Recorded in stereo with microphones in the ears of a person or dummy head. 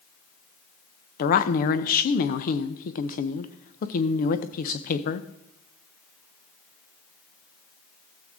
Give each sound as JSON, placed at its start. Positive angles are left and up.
{"t": 1.2, "sound": "a woman speaking", "side_deg": 50, "distance_m": 0.7}